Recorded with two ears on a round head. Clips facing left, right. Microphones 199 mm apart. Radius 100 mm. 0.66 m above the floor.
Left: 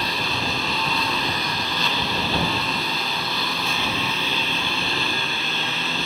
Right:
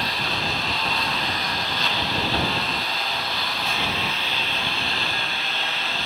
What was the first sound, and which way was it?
A lawn mower, 85° left.